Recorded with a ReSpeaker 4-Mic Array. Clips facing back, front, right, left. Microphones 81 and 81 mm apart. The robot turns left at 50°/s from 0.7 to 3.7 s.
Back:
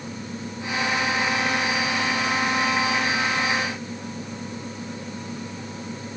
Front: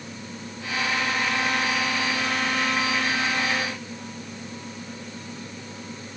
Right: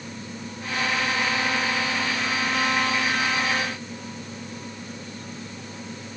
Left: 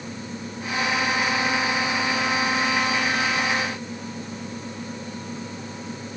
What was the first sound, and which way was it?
Only background noise.